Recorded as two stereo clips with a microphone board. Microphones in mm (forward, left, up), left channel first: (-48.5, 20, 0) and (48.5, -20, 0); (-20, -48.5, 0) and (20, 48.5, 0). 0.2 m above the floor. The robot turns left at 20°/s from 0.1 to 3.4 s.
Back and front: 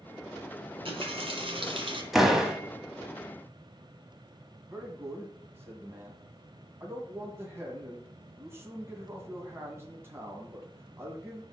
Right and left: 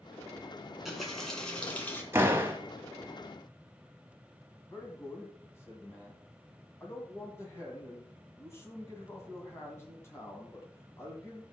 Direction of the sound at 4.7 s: 70° right.